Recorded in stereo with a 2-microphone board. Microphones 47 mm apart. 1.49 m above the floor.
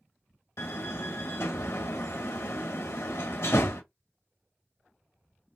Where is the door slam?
65° left (ahead or behind), 1.2 m.